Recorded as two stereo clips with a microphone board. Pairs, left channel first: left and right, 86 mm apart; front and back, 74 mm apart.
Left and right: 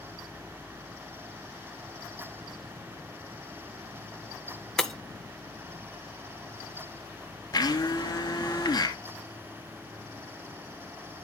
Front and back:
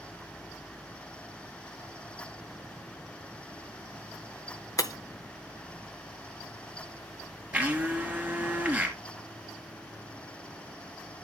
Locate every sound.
4.8 s breaking glass: 5° left, 0.6 m
7.5 s a blender: 115° left, 2.5 m